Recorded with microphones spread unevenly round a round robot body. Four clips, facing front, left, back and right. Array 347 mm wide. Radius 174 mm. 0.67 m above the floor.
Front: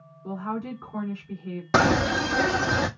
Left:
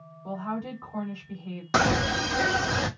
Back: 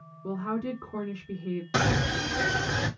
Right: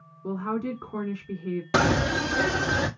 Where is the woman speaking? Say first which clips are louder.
Right 4 dB, even; 110° right, 2 m.